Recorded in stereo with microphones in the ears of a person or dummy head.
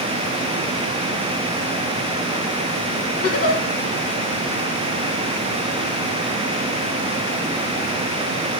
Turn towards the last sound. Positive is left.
turn(degrees=45)  # may be behind; listen again after turning